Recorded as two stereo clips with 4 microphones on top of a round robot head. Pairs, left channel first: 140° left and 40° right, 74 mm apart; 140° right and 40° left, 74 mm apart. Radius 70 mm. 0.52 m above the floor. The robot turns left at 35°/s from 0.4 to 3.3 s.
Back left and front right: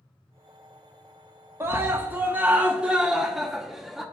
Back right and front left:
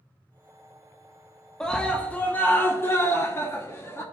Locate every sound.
1.6 s a scream: 65° right, 1.0 m; by 4.0 s 125° right, 1.0 m